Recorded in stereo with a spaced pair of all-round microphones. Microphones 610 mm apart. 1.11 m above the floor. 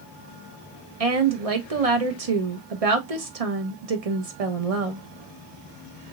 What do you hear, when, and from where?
1.0 s a woman speaking: 65° right (ahead or behind), 1.1 m